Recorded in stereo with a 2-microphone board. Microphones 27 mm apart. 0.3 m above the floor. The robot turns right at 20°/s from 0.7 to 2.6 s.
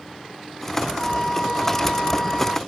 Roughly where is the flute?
Behind left.